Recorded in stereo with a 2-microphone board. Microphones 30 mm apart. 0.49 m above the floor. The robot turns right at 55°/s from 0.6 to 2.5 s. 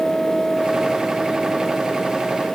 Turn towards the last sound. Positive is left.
No sound to turn to.